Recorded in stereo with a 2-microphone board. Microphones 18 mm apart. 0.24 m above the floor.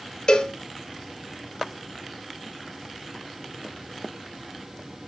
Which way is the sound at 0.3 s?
40° left (ahead or behind).